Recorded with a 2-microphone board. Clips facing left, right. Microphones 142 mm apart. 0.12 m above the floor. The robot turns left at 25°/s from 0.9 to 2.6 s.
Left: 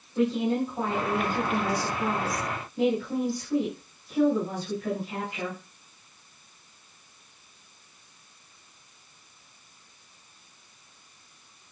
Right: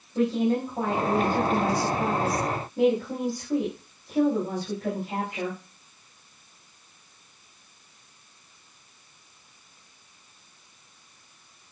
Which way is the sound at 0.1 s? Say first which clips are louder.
Right 1 dB; 50° right.